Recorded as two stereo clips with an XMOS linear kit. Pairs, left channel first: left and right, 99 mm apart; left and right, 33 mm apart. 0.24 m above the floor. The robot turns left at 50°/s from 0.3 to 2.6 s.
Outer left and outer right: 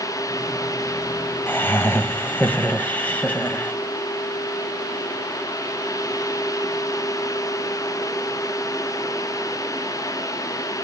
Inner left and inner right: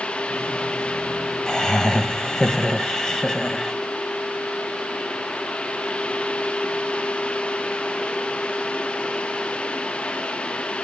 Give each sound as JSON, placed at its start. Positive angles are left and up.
{"t": 1.5, "sound": "laughter", "side_deg": 20, "distance_m": 0.9}